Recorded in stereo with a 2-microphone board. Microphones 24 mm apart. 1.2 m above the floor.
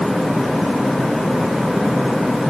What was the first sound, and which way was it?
Only background noise.